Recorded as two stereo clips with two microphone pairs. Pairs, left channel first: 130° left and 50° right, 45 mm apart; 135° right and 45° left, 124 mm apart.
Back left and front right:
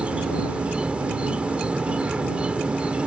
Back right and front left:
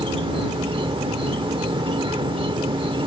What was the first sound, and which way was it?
An insect, 10° left.